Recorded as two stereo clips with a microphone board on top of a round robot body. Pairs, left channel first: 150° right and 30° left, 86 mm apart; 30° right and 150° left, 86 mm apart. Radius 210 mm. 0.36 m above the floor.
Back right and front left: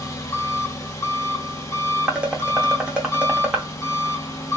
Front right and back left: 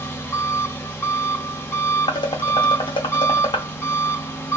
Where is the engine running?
95° right, 1.3 m.